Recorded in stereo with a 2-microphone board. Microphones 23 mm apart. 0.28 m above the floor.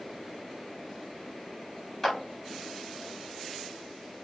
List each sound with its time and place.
2.0 s a clap: 15° left (ahead or behind), 1.2 m